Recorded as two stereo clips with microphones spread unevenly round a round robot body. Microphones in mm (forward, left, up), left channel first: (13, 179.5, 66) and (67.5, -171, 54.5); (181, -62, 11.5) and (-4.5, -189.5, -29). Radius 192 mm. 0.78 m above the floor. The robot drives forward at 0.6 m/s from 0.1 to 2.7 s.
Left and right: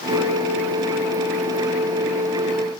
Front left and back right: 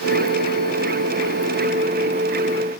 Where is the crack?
I don't hear a crack.